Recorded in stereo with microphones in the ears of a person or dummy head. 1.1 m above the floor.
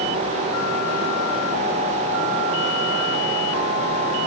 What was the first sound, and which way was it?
Only background noise.